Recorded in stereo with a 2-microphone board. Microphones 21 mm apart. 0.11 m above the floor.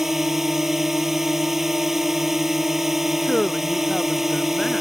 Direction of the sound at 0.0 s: 10° right (ahead or behind).